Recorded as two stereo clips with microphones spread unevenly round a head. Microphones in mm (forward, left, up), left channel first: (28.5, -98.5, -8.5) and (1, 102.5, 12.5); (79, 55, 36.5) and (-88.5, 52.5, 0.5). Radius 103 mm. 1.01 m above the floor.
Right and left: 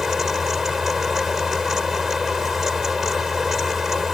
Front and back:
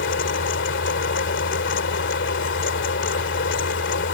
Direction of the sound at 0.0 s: 10° left.